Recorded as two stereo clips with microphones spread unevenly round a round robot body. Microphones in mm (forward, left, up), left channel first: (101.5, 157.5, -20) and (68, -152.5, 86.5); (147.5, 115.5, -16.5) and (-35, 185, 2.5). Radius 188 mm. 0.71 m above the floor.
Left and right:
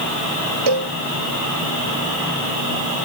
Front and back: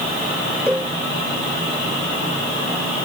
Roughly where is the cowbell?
Behind right.